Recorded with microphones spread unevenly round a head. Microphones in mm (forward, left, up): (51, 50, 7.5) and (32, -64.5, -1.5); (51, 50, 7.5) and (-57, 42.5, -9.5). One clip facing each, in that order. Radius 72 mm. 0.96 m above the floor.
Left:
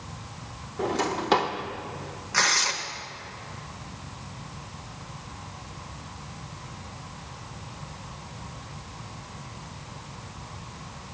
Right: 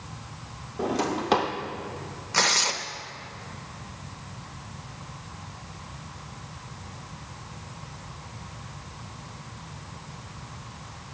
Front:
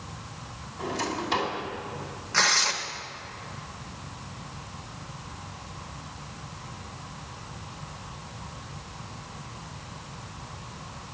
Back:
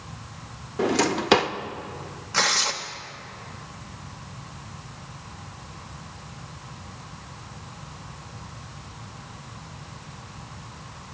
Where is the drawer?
175° left, 0.5 m.